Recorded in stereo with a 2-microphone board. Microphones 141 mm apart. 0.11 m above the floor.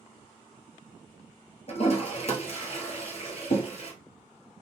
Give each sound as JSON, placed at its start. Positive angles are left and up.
{"t": 1.7, "sound": "a toilet flushing", "side_deg": 50, "distance_m": 0.8}